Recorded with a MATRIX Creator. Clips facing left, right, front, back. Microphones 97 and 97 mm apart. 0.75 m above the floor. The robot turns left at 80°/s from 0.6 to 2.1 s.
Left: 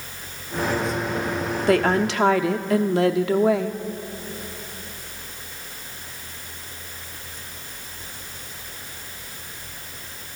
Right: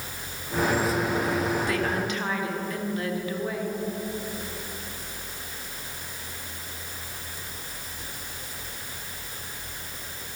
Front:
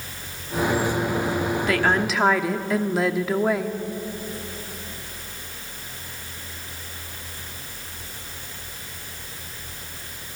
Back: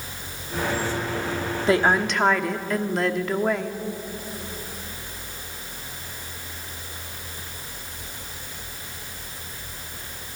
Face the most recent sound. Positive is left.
turn(degrees=85)